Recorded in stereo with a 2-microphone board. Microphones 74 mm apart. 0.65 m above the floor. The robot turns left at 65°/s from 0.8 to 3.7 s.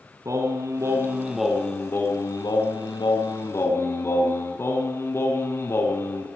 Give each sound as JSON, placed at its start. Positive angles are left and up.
{"t": 0.2, "sound": "singing", "azimuth_deg": -135, "distance_m": 3.5}